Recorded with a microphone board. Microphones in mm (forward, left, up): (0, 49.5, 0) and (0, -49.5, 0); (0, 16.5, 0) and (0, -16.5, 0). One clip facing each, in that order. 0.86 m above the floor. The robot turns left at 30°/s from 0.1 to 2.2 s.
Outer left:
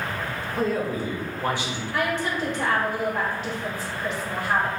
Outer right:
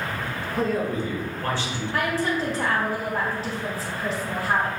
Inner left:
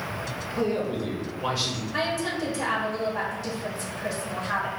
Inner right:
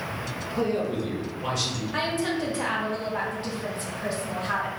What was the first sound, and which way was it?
A man speaking, straight behind.